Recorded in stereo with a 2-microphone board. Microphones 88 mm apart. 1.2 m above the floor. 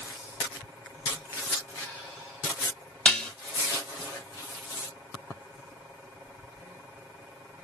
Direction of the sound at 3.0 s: 10° left (ahead or behind).